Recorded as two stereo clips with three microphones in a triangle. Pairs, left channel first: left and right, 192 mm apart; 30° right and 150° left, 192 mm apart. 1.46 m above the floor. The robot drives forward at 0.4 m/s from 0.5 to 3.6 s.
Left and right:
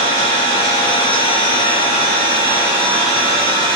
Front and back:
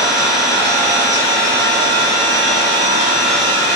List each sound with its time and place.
0.0 s an engine running: 65° left, 1.4 m; by 3.8 s 140° left, 1.6 m